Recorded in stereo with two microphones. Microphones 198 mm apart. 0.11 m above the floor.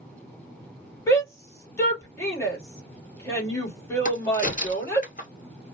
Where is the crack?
40° left (ahead or behind), 1.2 m.